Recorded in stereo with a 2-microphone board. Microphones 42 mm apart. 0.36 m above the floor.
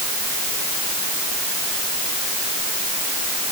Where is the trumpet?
I don't hear a trumpet.